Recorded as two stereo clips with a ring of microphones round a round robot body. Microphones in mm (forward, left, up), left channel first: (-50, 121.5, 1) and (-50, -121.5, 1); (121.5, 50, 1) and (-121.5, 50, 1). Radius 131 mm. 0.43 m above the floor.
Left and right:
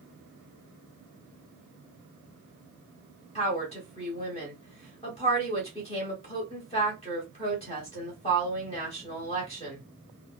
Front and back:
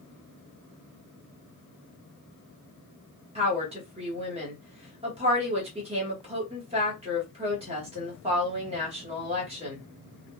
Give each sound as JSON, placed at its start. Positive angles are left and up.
{"t": 3.4, "sound": "a woman speaking", "azimuth_deg": 135, "distance_m": 1.5}